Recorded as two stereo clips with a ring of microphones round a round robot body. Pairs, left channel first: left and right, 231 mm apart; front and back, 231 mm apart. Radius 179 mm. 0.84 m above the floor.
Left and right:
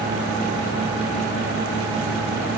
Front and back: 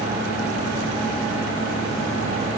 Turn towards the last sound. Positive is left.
No sound to turn to.